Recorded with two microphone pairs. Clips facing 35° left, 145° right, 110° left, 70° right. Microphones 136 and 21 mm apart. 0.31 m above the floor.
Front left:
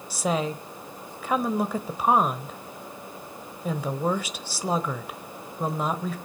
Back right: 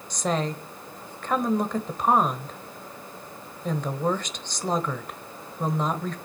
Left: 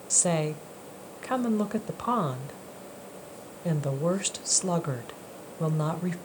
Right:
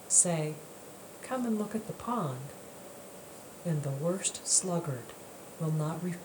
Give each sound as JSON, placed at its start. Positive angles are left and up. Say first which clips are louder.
{"t": 0.1, "sound": "a woman speaking", "louder": "even, left 4 dB", "azimuth_deg": 110, "distance_m": 1.3}